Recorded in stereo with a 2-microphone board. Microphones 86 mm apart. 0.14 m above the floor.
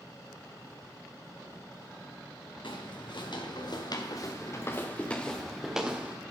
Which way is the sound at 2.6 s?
75° left (ahead or behind).